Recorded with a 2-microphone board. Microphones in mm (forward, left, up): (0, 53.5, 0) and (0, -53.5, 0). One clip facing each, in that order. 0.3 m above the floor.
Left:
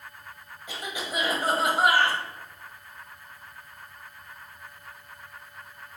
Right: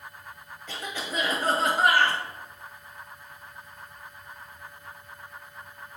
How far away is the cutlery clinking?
No cutlery clinking in this recording.